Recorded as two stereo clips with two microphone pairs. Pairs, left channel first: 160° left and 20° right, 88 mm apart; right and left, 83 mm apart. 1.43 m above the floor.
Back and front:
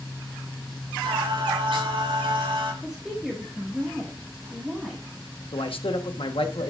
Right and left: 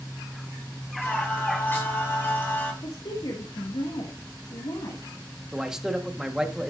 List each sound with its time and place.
1.0 s singing: 25° right, 6 m
2.8 s a woman speaking: 105° right, 2 m
5.5 s a man speaking: 170° left, 1.4 m